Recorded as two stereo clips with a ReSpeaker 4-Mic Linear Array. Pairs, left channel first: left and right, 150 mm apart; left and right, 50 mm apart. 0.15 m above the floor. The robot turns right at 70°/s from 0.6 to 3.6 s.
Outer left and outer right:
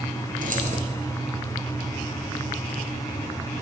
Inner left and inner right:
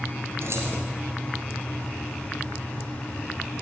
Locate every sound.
0.4 s keys jangling: 65° right (ahead or behind), 2.5 m; by 0.8 s 55° right (ahead or behind), 2.5 m